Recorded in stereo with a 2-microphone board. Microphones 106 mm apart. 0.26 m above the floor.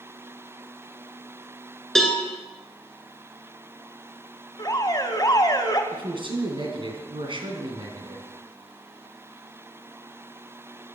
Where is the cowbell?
5° left (ahead or behind), 2 m.